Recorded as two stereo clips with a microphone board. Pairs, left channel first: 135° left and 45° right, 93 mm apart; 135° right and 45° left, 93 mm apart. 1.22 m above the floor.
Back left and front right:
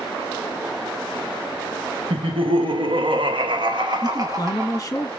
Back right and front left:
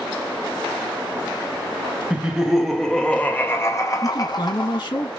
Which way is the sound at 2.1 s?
35° right.